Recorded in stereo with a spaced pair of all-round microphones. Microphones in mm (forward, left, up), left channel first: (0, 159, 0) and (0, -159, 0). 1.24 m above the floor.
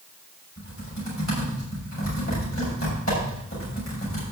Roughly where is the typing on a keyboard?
Left.